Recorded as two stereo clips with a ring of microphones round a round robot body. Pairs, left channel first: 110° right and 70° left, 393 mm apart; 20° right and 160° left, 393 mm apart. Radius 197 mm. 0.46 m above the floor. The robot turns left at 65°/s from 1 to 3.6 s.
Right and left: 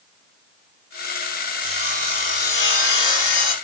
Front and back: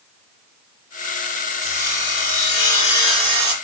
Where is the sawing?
Straight ahead, 2.5 m; by 3.5 s 130° right, 2.5 m.